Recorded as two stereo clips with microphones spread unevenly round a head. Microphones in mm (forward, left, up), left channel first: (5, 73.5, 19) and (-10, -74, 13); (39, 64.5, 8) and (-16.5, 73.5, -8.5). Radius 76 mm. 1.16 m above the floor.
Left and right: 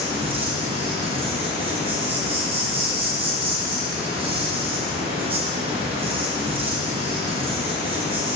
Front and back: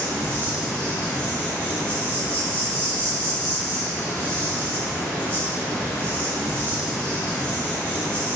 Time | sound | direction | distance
0.0 | an insect | 90° right | 1.4 m